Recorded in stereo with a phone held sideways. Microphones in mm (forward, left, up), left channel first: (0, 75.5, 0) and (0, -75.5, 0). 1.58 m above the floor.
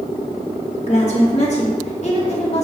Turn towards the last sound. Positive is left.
turn(degrees=45)  # may be behind; listen again after turning